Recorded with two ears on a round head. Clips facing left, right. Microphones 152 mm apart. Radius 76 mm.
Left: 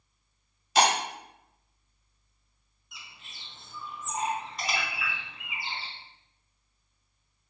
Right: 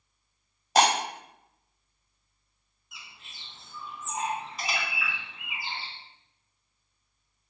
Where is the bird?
5° right (ahead or behind), 2 m.